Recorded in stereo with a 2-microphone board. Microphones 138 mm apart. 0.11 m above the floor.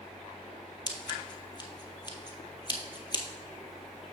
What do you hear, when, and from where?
0.9 s scissors: 35° left (ahead or behind), 1.0 m